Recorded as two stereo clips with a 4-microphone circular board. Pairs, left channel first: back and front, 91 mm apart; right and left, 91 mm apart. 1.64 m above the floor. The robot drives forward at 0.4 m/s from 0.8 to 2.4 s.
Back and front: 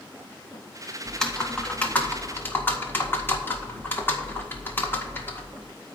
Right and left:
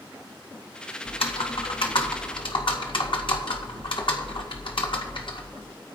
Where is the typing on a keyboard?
95° right, 1.6 m; by 5.7 s 115° right, 1.7 m.